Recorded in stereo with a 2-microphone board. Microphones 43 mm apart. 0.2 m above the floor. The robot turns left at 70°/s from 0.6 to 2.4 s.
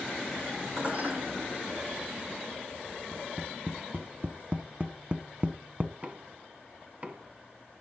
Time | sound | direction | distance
0.8 | dishes clattering | 20° right (ahead or behind) | 8 m
3.1 | tapping | 40° right (ahead or behind) | 1.5 m
6.0 | knocking | 40° right (ahead or behind) | 1.6 m